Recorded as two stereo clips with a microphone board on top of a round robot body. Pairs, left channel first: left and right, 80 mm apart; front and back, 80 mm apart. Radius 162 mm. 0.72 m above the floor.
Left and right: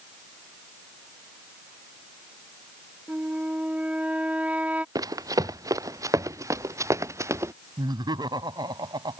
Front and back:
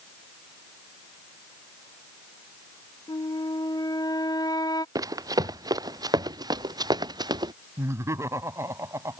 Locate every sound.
3.1 s a flute: 20° right
5.0 s running footsteps: 135° right; by 7.5 s 145° right
7.8 s laughter: 125° right